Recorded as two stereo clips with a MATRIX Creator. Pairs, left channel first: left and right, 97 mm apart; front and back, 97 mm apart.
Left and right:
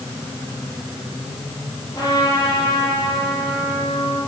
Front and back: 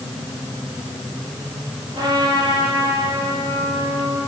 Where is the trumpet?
140° left, 9 m.